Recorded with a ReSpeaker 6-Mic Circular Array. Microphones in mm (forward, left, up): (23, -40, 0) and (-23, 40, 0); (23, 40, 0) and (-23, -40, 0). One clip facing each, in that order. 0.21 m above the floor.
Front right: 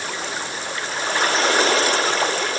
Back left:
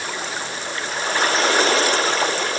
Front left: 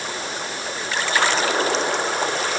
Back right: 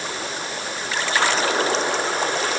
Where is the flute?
No flute in this recording.